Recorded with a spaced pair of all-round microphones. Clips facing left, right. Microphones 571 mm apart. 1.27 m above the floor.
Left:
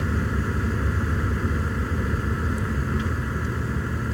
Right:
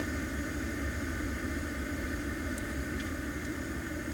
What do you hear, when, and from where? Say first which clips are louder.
0.0 s a vehicle: left 8 dB; 85° left